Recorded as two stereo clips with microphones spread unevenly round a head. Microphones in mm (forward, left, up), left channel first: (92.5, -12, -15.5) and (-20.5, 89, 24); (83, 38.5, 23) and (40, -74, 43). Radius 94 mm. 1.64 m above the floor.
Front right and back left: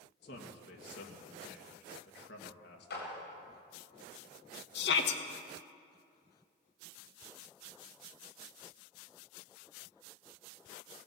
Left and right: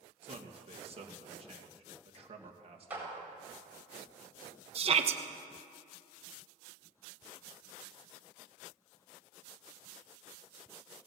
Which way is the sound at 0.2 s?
75° right.